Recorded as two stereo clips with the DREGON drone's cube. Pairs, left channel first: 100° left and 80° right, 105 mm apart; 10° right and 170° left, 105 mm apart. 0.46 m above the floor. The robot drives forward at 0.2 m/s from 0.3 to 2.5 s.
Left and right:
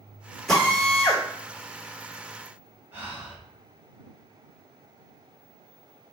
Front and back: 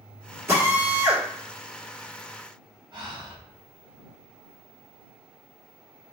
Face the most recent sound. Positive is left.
turn(degrees=-145)